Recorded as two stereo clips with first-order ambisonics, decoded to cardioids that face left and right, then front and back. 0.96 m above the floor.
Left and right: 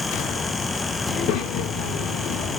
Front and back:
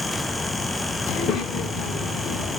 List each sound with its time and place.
1.1 s a child speaking: 60° left, 1.5 m